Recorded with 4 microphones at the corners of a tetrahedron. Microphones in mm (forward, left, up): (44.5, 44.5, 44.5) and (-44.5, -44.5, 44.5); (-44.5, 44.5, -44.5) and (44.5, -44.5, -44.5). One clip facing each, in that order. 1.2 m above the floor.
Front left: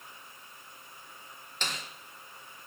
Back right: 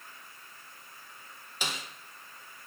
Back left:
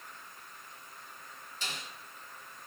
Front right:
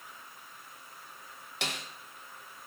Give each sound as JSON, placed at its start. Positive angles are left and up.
{"t": 1.6, "sound": "a snare drum", "azimuth_deg": -55, "distance_m": 1.0}